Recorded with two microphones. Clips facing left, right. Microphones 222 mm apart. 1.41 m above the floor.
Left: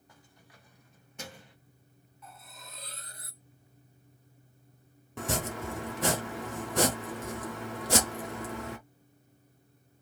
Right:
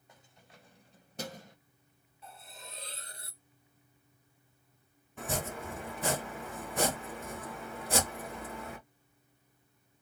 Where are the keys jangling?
20° right (ahead or behind), 1.2 m; by 1.6 s 45° right (ahead or behind), 0.7 m.